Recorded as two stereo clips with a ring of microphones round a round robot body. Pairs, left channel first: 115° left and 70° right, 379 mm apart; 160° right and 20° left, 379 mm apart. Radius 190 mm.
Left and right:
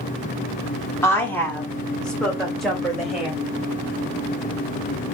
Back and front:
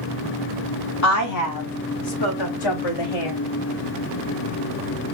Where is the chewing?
I don't hear chewing.